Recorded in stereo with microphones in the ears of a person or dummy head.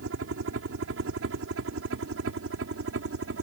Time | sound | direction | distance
0.0 | a helicopter | 60° right (ahead or behind) | ?